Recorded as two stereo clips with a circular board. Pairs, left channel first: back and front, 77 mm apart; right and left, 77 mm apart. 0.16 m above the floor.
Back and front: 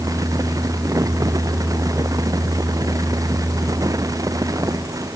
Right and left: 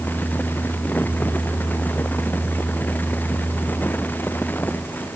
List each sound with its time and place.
Only background noise.